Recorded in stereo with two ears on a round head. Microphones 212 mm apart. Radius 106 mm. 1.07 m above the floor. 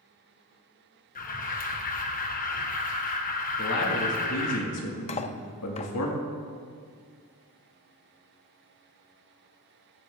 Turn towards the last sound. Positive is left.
turn(degrees=25)  # may be behind; listen again after turning